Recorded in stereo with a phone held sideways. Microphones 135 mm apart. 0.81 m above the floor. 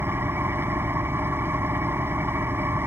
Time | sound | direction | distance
0.0 | an engine running | 15° right (ahead or behind) | ?